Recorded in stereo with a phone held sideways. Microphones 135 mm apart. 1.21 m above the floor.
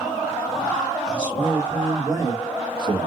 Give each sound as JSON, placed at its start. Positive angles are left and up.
{"t": 1.1, "sound": "a man speaking", "side_deg": -5, "distance_m": 1.7}